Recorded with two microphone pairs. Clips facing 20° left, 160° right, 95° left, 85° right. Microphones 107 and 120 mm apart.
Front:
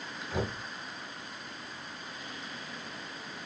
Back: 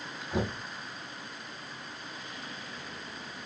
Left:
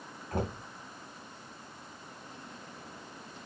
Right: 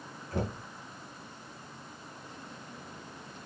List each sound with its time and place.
0.3 s knocking: 125° left, 6 m